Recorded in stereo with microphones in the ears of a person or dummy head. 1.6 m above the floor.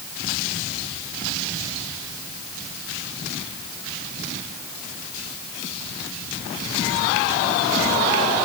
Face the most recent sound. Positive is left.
No sound to turn to.